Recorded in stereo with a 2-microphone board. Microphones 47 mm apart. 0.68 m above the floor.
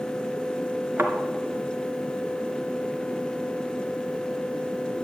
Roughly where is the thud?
Right.